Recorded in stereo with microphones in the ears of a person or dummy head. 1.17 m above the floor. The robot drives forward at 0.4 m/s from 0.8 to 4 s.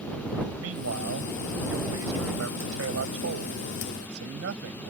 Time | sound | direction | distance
0.6 | a man speaking | 85° right | ?